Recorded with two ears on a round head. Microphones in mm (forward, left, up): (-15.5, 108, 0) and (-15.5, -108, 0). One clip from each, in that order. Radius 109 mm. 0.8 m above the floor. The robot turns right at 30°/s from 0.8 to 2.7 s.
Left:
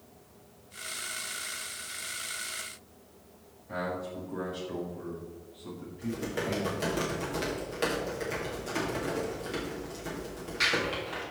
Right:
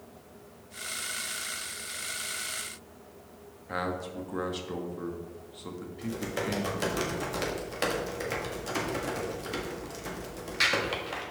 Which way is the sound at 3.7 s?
55° right (ahead or behind).